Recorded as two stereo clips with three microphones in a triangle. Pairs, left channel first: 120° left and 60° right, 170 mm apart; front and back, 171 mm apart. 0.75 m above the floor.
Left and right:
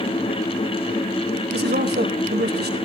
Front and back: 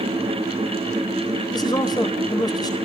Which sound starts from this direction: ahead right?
A man speaking, at 1.5 s.